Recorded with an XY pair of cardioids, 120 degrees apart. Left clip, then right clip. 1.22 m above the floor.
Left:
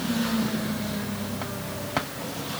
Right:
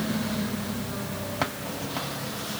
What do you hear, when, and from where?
Only background noise.